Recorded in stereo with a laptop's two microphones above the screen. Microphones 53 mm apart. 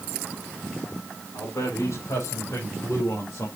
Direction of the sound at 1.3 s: 70° left (ahead or behind).